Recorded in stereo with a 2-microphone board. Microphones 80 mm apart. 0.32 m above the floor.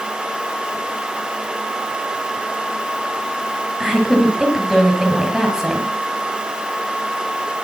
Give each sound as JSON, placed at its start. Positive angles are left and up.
{"t": 3.8, "sound": "a woman speaking", "side_deg": -10, "distance_m": 7.0}